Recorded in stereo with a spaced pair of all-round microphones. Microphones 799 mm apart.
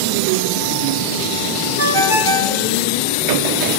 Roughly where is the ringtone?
Right.